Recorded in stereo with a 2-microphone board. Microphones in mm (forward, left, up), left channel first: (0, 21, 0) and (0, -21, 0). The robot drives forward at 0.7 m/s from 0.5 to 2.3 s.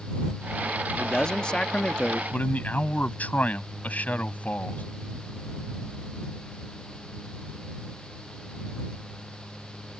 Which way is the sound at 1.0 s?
20° left (ahead or behind).